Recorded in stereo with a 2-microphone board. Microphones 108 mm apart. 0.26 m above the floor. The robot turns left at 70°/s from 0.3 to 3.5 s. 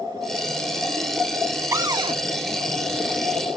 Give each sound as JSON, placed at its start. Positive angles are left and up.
{"t": 1.7, "sound": "a cupboard door", "azimuth_deg": -30, "distance_m": 0.7}